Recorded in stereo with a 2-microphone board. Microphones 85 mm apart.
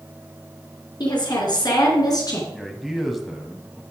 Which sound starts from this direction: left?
A woman speaking, at 1.0 s.